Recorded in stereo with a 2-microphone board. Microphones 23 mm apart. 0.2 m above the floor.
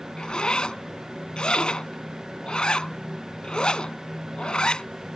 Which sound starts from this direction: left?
A zipper, at 0.2 s.